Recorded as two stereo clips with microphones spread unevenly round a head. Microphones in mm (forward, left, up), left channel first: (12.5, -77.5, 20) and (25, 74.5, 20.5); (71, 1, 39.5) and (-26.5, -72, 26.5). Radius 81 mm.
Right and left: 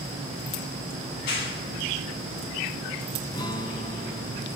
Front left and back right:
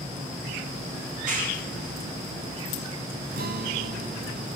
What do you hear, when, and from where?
1.1 s a clap: 130° right, 8 m
3.3 s a guitar: 160° right, 1.7 m